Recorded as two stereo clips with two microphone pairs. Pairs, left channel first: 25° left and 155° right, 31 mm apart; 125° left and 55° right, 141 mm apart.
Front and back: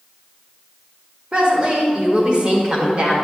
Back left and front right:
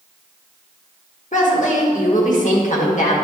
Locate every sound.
1.3 s a woman speaking: 150° left, 1.7 m